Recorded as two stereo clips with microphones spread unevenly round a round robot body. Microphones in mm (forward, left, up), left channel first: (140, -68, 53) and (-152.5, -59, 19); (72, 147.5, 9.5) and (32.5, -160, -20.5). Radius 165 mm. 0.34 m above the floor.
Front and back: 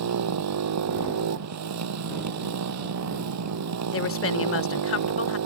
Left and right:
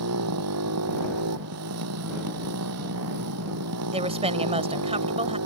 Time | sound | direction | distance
0.0 | a motorcycle | 150° right | ?
3.9 | a woman speaking | 35° right | ?